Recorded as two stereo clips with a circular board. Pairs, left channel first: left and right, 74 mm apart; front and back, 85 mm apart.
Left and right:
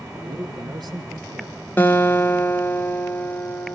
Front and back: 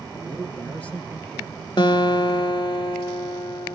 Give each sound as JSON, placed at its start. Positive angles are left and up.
{"t": 0.1, "sound": "a man speaking", "azimuth_deg": -70, "distance_m": 5.0}
{"t": 1.8, "sound": "a guitar", "azimuth_deg": 25, "distance_m": 1.5}